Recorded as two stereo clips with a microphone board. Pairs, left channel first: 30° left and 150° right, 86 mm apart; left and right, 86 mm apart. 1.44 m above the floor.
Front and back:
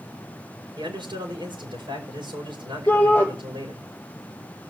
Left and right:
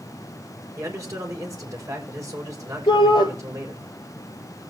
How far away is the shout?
About 4.5 m.